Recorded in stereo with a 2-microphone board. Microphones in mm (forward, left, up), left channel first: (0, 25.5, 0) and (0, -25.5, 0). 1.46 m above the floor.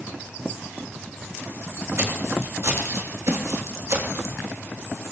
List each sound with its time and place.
2.0 s footsteps: 50° right (ahead or behind), 4 m; by 4.4 s 60° right (ahead or behind), 3.5 m